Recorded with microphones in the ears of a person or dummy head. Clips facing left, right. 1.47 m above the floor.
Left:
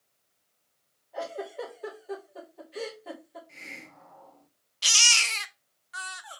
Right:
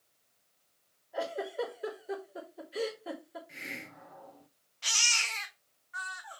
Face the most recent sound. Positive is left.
turn(degrees=40)  # may be behind; listen again after turning